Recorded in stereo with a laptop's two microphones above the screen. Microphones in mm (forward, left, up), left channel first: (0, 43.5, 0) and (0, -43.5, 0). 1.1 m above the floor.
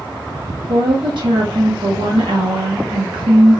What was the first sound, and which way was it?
A woman speaking, 70° right (ahead or behind).